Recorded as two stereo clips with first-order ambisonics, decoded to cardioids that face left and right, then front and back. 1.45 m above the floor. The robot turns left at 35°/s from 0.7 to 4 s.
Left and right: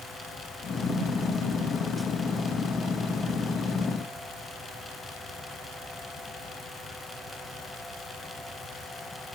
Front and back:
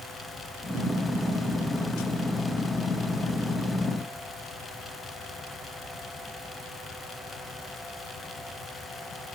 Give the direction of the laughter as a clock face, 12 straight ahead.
No laughter in this recording.